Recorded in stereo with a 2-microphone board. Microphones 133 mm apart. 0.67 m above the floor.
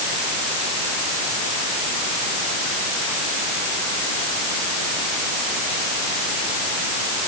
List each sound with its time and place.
Only background noise.